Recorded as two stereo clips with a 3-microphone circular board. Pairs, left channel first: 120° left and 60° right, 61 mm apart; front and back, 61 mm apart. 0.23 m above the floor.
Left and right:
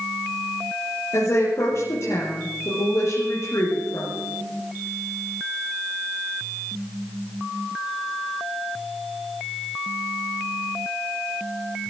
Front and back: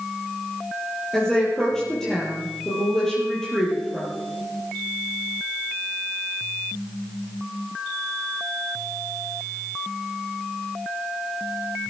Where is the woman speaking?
80° left, 6 m.